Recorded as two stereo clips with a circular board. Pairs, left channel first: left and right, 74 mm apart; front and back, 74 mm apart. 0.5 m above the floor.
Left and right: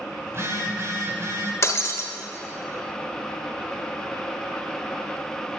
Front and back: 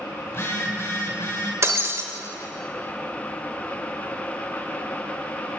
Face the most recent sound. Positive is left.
turn(degrees=135)